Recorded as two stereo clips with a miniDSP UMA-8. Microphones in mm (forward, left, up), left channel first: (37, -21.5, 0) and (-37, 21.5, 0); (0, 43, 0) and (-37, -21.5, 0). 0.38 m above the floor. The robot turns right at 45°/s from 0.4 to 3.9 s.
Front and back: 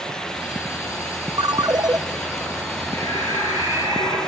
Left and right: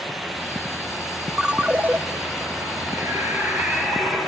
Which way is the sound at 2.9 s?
75° right.